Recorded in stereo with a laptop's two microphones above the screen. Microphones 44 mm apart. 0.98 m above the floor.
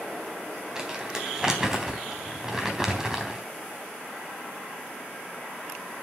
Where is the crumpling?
15° right (ahead or behind), 3.5 m.